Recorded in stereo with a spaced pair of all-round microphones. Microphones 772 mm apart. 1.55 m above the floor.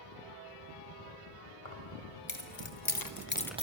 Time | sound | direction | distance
1.6 | keys jangling | 40° left (ahead or behind) | 3 m